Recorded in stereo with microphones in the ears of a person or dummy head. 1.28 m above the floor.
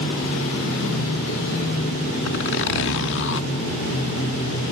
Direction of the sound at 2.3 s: 65° left (ahead or behind).